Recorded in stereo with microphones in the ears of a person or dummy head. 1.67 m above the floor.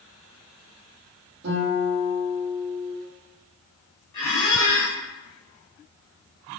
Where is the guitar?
55° right (ahead or behind), 1.3 m.